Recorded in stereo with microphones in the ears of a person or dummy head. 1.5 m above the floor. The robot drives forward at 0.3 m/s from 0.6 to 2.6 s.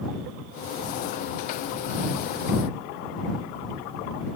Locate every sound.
Only background noise.